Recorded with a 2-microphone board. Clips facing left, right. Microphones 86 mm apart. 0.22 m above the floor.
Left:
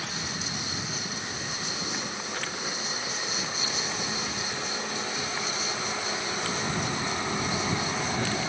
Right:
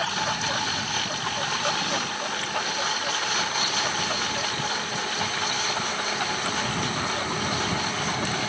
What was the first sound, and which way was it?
A lawn mower, 80° right.